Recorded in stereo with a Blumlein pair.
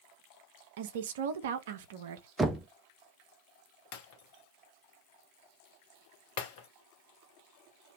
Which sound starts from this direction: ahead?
Knocking, at 2.4 s.